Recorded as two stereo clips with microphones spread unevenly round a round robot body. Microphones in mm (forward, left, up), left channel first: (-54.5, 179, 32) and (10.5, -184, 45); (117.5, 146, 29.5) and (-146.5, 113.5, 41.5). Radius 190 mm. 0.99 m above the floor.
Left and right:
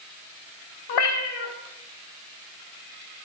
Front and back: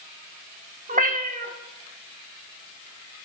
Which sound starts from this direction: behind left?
A cat meowing, at 0.9 s.